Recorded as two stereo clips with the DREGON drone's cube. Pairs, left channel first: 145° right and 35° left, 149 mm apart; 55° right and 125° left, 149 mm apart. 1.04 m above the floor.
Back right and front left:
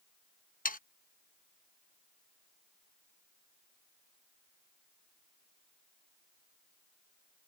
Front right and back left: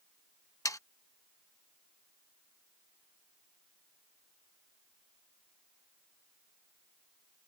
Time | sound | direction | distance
0.7 | sawing | 125° right | ?